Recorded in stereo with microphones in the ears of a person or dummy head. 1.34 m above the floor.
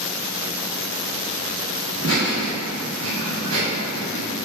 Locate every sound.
1.9 s laughter: 60° right (ahead or behind), 1.8 m; by 4.2 s 55° right (ahead or behind), 2.0 m